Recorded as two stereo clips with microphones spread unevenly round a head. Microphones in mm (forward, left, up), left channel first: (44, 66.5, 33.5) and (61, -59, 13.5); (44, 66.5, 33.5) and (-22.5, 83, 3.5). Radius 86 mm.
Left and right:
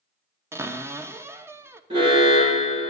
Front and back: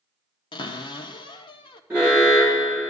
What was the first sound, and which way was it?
A cupboard door, 20° right.